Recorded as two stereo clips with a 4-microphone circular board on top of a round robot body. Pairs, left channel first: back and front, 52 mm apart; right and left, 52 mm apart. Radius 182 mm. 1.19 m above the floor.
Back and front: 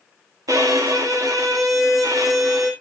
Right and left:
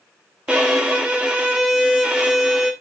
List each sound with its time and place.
0.5 s a violin: 15° left, 1.6 m